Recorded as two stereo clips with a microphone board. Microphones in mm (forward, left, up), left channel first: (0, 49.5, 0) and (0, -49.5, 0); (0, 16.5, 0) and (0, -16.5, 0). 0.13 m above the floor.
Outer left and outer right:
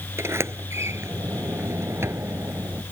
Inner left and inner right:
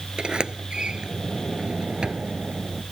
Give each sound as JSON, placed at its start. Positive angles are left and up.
{"t": 0.2, "sound": "a sliding door", "side_deg": -25}